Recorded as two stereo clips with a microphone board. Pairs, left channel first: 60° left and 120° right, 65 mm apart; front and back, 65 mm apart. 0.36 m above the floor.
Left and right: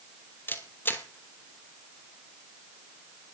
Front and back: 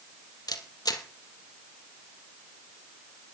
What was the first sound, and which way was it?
A camera shutter, 5° left.